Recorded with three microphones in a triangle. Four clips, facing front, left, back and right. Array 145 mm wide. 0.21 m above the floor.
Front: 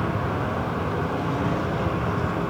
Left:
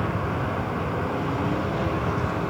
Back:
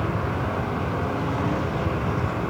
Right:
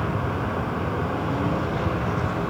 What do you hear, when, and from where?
Only background noise.